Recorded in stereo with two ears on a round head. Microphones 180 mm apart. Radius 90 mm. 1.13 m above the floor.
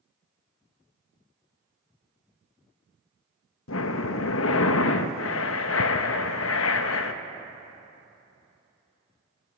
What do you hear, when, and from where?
3.7 s breathing: 70° left (ahead or behind), 0.7 m